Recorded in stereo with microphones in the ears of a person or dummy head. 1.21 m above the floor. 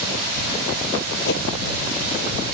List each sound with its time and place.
1.2 s a whoosh: 70° left (ahead or behind)